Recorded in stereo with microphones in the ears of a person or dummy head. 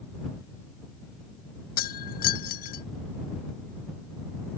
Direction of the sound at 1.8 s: 50° left (ahead or behind).